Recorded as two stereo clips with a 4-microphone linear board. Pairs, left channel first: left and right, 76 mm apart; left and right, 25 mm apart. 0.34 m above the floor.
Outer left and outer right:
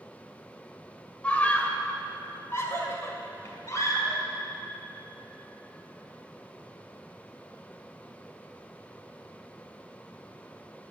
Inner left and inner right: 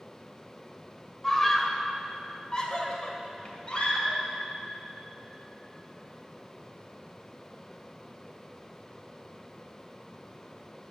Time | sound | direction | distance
1.2 | a scream | 15° left (ahead or behind) | 1.6 m